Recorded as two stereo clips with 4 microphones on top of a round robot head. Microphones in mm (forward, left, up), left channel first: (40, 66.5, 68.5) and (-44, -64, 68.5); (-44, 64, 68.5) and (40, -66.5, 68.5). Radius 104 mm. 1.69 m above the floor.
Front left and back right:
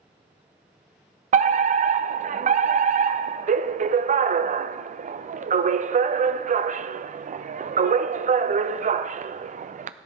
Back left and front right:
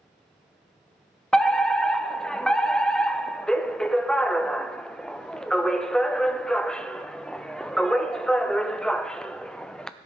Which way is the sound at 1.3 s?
150° right.